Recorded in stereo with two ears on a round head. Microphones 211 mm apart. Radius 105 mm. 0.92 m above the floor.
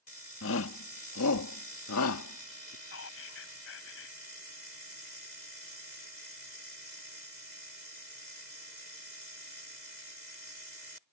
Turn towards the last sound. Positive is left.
turn(degrees=60)  # may be behind; listen again after turning